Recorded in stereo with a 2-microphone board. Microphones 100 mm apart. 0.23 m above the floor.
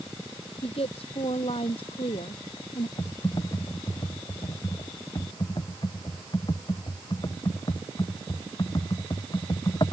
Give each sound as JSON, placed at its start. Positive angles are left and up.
{"t": 0.6, "sound": "a woman speaking", "side_deg": 70}
{"t": 3.0, "sound": "typing on a keyboard", "side_deg": 45}